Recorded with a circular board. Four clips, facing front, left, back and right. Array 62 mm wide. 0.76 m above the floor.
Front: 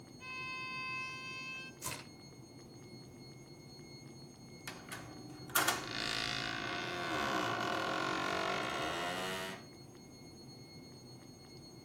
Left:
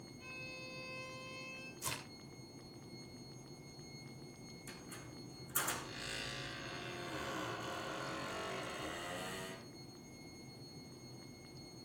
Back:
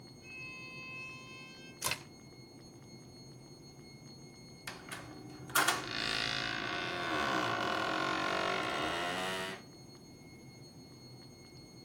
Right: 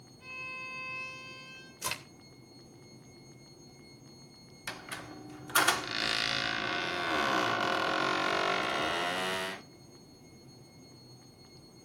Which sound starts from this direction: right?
A squeak, at 4.7 s.